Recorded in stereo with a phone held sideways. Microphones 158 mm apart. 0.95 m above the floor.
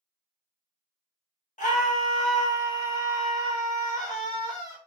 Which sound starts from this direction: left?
A scream, at 1.6 s.